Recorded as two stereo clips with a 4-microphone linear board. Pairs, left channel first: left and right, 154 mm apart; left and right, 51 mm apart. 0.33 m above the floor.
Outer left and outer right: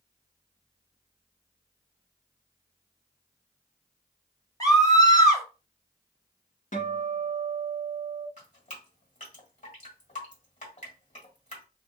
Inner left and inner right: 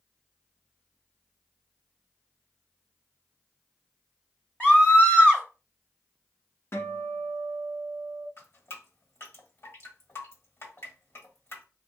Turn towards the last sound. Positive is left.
turn(degrees=50)  # may be behind; listen again after turning